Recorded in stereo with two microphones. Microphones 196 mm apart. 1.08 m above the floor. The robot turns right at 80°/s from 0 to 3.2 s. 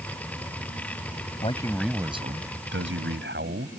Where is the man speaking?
145° left; by 3.7 s 70° right.